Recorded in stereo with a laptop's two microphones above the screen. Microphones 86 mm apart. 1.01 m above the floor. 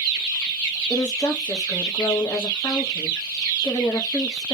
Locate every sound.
0.9 s a woman speaking: 50° left (ahead or behind), 0.8 m